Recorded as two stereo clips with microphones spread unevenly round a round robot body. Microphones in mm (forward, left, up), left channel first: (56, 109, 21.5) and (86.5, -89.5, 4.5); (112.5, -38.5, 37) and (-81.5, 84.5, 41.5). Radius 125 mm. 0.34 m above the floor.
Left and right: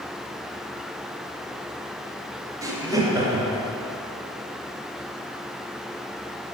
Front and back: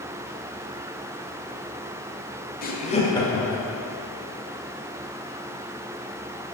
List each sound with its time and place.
2.6 s laughter: 25° right, 1.1 m; by 3.7 s 130° right, 1.0 m